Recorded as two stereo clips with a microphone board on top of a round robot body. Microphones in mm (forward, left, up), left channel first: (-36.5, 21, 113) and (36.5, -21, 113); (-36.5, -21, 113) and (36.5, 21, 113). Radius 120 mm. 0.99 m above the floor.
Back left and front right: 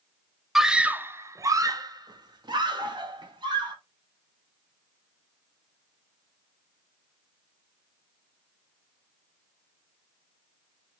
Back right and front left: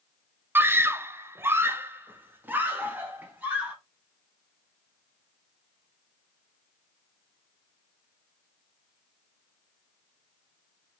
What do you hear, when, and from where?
0.6 s a scream: 55° left, 0.7 m; by 3.8 s 40° right, 1.8 m